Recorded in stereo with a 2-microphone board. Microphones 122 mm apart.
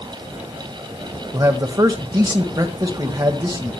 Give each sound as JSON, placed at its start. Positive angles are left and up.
{"t": 1.3, "sound": "a man speaking", "side_deg": -35, "distance_m": 1.4}